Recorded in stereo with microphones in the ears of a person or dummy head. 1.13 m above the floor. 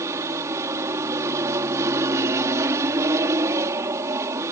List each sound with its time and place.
0.0 s an aircraft: 15° right (ahead or behind)